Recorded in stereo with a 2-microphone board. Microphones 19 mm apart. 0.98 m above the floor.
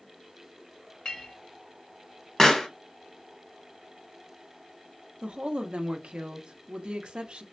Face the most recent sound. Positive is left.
turn(degrees=-70)  # may be behind; listen again after turning